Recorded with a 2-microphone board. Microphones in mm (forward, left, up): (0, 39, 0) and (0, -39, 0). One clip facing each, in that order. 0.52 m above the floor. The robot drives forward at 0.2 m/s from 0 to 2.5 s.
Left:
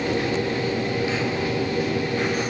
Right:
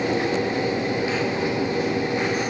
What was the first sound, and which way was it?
Only background noise.